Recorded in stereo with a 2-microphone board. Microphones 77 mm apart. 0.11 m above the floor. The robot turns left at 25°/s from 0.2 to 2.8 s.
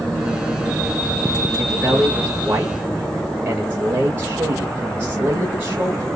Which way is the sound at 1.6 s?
15° right (ahead or behind).